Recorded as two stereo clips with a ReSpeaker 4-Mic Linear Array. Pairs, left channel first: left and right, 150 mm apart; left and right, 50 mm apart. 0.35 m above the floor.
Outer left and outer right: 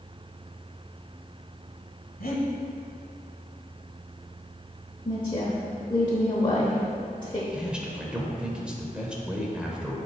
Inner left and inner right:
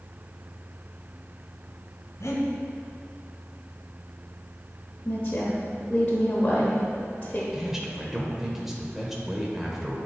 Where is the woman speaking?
30° left (ahead or behind), 0.9 m.